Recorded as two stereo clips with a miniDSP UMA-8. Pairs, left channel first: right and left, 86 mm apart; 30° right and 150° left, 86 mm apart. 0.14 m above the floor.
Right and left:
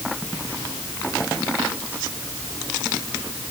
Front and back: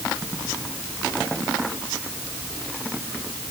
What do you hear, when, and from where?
Only background noise.